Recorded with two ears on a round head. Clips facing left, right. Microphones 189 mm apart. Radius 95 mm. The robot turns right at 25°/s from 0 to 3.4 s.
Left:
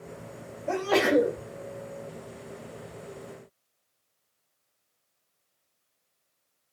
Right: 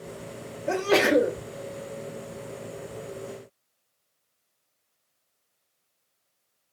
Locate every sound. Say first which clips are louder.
0.7 s a sneeze: right 2 dB; 25° right (ahead or behind), 0.7 m; by 1.4 s 20° right (ahead or behind), 0.7 m